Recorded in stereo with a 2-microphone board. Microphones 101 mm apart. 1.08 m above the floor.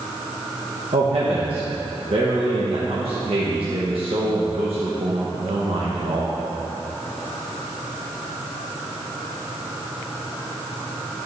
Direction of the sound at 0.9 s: 65° right (ahead or behind).